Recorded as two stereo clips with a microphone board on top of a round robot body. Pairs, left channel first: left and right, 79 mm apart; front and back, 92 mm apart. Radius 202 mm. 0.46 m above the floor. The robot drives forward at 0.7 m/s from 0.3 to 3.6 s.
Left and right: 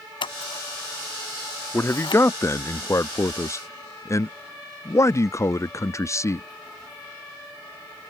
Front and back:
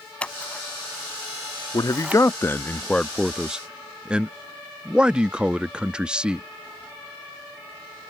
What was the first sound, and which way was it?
Scissors, 80° left.